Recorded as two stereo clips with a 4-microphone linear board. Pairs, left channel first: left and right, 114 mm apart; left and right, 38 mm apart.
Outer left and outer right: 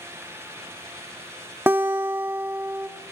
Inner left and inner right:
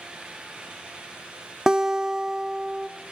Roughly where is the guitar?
Centre.